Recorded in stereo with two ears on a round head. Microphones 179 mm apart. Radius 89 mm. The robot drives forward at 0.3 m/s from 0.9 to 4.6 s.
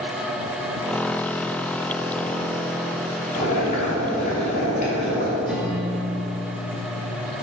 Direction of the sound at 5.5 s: 5° right (ahead or behind).